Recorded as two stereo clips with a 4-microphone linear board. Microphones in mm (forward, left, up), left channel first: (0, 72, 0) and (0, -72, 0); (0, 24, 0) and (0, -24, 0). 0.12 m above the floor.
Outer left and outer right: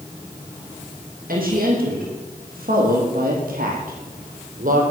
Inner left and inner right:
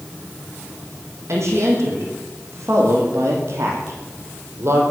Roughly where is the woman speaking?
Right.